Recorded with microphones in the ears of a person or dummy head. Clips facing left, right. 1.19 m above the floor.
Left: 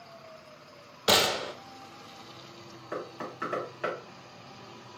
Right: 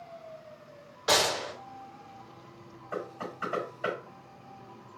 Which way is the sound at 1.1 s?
40° left (ahead or behind).